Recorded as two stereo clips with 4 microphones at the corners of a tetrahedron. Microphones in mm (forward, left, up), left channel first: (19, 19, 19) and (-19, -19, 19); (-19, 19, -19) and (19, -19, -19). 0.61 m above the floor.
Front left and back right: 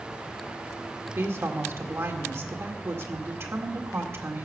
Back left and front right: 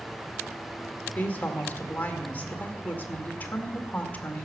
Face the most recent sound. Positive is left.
turn(degrees=-170)